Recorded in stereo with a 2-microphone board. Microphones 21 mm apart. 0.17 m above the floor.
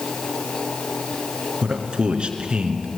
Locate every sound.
1.6 s a man speaking: 55° right (ahead or behind), 2.5 m